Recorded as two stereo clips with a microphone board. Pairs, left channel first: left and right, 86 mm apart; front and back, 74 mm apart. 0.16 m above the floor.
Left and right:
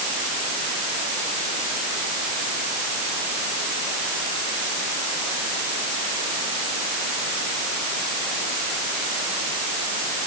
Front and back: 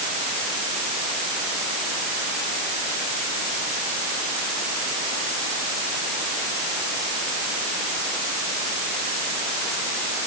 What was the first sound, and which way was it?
Only background noise.